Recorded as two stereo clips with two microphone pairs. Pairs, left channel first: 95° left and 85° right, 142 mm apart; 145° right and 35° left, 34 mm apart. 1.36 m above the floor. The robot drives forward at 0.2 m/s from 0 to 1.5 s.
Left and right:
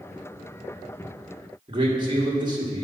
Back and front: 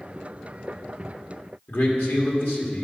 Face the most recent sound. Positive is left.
turn(degrees=-140)